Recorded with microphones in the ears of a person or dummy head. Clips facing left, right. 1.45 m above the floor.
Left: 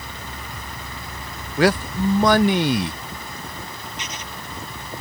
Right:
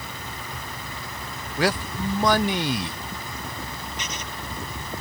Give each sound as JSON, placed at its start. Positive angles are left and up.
{"t": 1.6, "sound": "a man speaking", "side_deg": 45}
{"t": 4.0, "sound": "writing", "side_deg": -85}